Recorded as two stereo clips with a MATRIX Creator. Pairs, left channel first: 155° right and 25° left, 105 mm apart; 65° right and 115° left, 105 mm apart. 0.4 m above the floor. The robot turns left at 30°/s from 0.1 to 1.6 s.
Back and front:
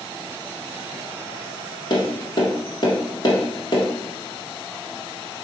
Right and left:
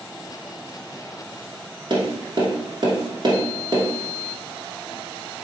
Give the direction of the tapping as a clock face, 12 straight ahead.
7 o'clock.